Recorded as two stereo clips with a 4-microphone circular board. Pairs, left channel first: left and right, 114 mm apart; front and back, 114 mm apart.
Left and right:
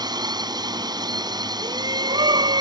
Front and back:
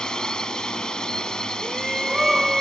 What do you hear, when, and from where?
0.0 s a drone: 80° right
1.6 s a shout: 95° right